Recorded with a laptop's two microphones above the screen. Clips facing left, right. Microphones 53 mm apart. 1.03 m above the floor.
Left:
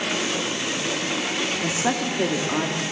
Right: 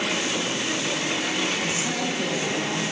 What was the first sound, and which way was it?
A woman speaking, 50° left (ahead or behind).